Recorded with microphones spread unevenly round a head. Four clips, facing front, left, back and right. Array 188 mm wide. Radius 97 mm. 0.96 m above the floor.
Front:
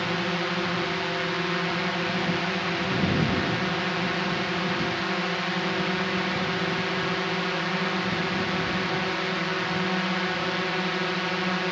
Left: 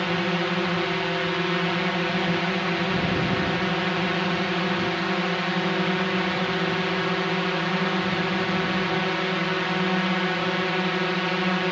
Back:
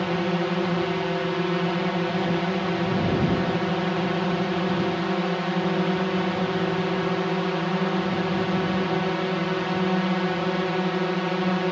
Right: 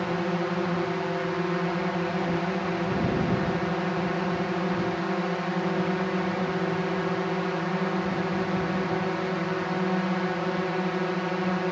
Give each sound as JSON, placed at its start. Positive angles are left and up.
{"t": 0.0, "sound": "a drone", "azimuth_deg": 170}